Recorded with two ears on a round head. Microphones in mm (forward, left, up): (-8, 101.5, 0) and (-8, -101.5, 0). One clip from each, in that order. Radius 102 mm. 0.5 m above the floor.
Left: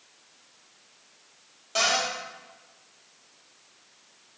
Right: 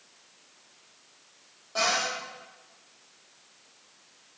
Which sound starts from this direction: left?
A cupboard door, at 1.8 s.